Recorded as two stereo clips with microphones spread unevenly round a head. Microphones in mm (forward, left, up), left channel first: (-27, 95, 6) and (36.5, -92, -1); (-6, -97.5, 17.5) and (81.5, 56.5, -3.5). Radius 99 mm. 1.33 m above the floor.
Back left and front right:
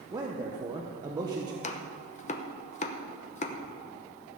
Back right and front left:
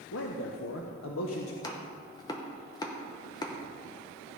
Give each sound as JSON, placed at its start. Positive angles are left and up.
{"t": 0.1, "sound": "a man speaking", "azimuth_deg": -140, "distance_m": 0.9}
{"t": 1.6, "sound": "chopping", "azimuth_deg": 165, "distance_m": 0.9}